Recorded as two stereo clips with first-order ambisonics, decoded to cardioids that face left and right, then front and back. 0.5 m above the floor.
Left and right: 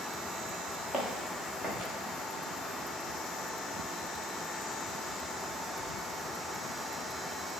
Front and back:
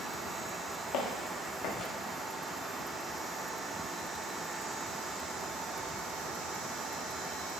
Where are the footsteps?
15° left, 1.7 m.